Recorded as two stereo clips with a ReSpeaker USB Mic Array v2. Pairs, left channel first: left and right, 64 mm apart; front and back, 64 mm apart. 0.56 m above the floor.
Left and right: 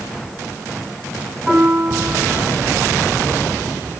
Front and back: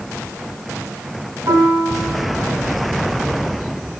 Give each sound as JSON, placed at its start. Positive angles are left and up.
{"t": 1.5, "sound": "a piano", "azimuth_deg": -170, "distance_m": 4.5}